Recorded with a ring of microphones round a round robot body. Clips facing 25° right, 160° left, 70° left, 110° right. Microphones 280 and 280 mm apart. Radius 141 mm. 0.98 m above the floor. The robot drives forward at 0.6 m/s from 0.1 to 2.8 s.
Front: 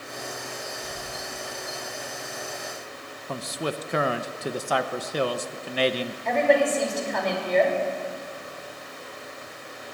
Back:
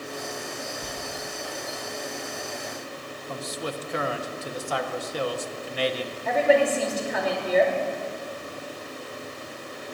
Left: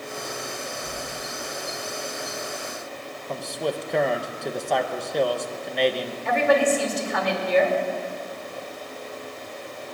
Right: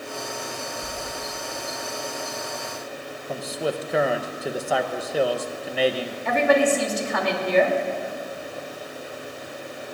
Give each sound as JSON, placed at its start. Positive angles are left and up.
{"t": 0.8, "sound": "a sliding door", "azimuth_deg": -175, "distance_m": 4.0}
{"t": 3.3, "sound": "a man speaking", "azimuth_deg": -25, "distance_m": 0.7}
{"t": 6.2, "sound": "a woman speaking", "azimuth_deg": -115, "distance_m": 3.0}